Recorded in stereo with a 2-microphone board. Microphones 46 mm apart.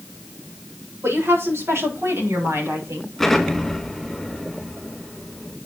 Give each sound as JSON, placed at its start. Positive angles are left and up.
{"t": 1.0, "sound": "a woman speaking", "side_deg": -80, "distance_m": 7.0}
{"t": 3.2, "sound": "an explosion", "side_deg": 0, "distance_m": 3.5}